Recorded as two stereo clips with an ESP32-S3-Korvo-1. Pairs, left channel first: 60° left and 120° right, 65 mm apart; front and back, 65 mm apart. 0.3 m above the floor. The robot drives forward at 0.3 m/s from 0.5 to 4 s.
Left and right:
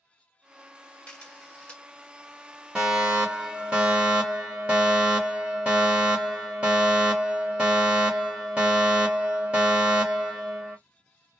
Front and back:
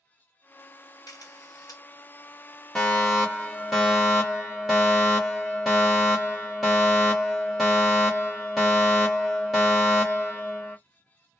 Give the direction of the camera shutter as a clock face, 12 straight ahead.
12 o'clock.